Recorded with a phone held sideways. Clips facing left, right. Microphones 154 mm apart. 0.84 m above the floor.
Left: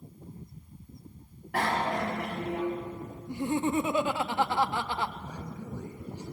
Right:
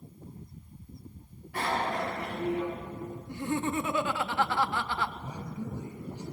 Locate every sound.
1.5 s a bicycle bell: 90° left, 4.5 m; by 2.6 s 75° left (ahead or behind), 5 m
3.3 s laughter: 20° left (ahead or behind), 0.9 m
5.2 s a man speaking: 15° right (ahead or behind), 6 m